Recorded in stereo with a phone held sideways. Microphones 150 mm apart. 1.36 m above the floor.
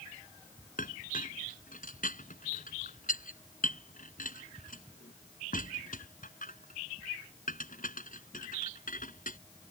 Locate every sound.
0.8 s a clink: 65° left (ahead or behind)